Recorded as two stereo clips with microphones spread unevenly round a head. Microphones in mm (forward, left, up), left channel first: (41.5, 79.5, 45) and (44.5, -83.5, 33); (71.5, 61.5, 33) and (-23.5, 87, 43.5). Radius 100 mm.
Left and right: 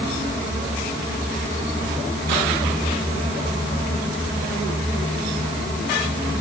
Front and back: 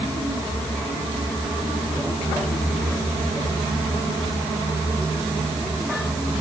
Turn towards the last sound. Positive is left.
No sound to turn to.